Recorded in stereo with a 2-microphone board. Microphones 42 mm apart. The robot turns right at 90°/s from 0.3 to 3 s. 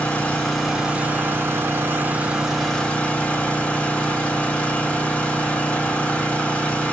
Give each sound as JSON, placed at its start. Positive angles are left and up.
{"t": 0.0, "sound": "an engine running", "azimuth_deg": 150, "distance_m": 2.5}